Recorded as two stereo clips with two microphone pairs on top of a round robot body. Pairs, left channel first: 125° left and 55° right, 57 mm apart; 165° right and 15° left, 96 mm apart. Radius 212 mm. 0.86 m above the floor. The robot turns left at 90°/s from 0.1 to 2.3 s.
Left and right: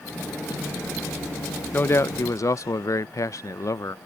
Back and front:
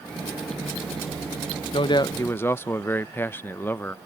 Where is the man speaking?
Straight behind; by 4.0 s 130° left.